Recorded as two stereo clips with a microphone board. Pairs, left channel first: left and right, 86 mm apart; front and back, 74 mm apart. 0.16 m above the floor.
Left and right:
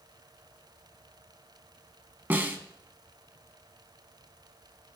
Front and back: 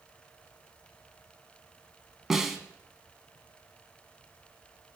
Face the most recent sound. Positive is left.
turn(degrees=-105)